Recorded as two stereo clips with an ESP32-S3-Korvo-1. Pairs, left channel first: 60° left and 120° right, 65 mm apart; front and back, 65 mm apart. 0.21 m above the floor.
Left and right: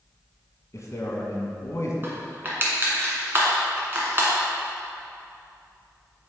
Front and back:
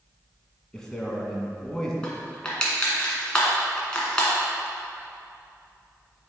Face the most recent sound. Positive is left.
turn(degrees=-70)